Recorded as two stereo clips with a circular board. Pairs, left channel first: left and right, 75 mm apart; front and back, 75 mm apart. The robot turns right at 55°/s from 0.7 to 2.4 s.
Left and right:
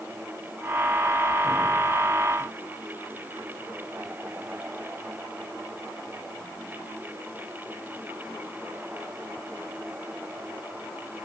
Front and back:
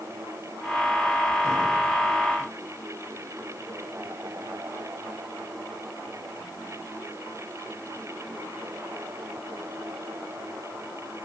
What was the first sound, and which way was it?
Only background noise.